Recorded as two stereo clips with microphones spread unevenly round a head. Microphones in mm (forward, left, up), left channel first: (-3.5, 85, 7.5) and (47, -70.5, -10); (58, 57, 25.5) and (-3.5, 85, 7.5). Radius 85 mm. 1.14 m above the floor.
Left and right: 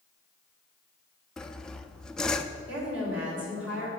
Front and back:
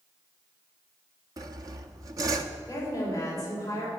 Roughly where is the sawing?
Behind.